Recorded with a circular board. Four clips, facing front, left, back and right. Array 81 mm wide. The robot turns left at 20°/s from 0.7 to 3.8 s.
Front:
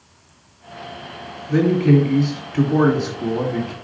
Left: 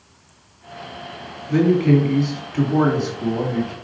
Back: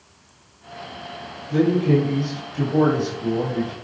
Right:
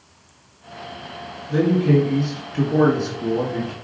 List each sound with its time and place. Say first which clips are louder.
1.5 s a man speaking: left 2 dB, front 3 dB; 55° left, 3 m; by 3.7 s 10° left, 3 m